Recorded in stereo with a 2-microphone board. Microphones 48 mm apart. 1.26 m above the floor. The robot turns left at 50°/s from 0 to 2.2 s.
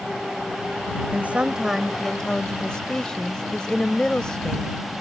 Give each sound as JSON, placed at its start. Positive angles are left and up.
{"t": 1.1, "sound": "a woman speaking", "azimuth_deg": -145}